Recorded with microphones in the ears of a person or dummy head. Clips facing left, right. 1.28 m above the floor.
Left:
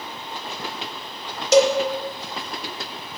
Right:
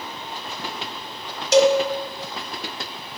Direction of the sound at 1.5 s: 85° left.